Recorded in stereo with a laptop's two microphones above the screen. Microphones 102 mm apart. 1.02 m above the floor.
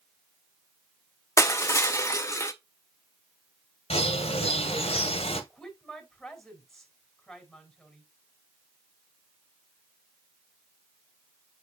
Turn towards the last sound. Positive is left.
turn(degrees=5)  # may be behind; listen again after turning